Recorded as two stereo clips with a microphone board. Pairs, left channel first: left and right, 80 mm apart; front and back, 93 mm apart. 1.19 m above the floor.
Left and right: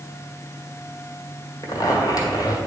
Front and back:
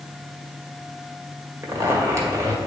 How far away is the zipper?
About 1.6 m.